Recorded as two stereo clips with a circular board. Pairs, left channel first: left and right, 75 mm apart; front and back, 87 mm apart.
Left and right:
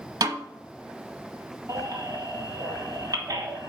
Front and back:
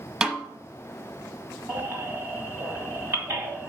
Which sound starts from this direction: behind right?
A baby crying, at 1.7 s.